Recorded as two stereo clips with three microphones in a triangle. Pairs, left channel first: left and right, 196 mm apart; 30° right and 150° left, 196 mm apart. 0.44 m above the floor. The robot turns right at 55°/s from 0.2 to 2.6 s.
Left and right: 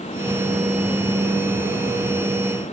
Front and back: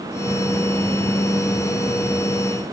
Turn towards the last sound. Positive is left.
No sound to turn to.